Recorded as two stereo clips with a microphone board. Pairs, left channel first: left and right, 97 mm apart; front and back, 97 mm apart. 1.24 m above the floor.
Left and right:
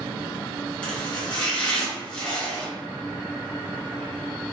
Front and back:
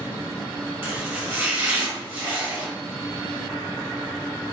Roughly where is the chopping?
Behind left.